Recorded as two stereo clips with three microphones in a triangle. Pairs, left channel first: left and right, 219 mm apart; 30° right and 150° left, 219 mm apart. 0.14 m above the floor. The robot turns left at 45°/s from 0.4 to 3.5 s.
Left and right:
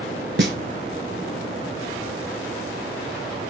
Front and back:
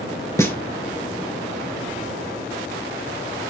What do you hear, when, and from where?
0.4 s a snare drum: 105° right, 0.7 m; by 0.6 s 115° right, 0.7 m